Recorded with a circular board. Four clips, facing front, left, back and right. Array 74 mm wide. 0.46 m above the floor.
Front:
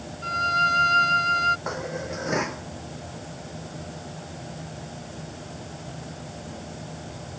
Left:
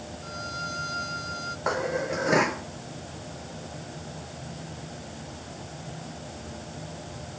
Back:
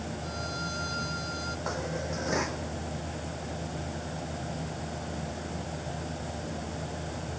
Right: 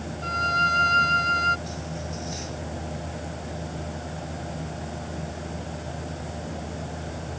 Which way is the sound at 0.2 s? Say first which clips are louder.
Right 13 dB, front 19 dB; 40° right.